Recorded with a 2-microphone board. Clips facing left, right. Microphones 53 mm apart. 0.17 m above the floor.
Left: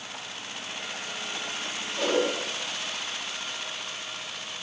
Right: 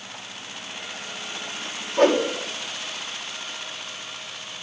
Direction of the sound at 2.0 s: 55° right (ahead or behind).